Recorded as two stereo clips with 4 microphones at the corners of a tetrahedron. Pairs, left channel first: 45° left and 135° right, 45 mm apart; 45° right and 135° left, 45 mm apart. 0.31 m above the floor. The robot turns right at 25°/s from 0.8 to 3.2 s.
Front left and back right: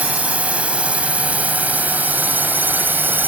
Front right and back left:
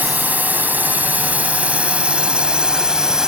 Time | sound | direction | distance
0.0 | a drone | 175° left | ?